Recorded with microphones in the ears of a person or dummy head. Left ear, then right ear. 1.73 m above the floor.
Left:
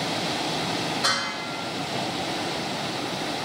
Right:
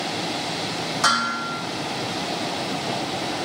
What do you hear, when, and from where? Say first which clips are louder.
1.0 s dishes clattering: right 8 dB; 50° right (ahead or behind), 2.0 m